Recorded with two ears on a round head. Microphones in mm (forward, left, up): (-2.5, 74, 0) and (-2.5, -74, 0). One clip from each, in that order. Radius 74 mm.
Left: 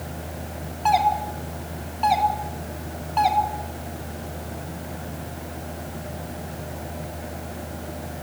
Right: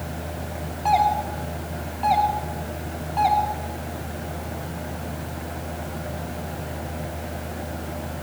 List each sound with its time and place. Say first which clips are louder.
0.8 s a doorbell: even; 30° left (ahead or behind), 3 m